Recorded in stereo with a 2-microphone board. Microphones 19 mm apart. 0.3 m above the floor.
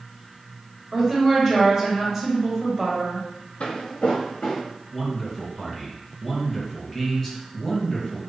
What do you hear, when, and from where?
0.9 s a woman speaking: 20° right (ahead or behind), 1.5 m
3.6 s footsteps: 60° left (ahead or behind), 0.6 m; by 4.6 s 45° left (ahead or behind), 1.2 m
4.9 s a man speaking: centre (ahead or behind), 1.4 m